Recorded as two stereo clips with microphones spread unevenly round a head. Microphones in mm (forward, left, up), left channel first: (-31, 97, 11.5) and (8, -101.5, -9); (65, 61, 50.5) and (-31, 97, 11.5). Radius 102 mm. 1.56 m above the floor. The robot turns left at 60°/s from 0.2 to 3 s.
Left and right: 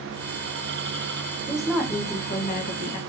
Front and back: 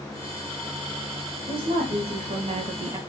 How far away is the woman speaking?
About 0.8 m.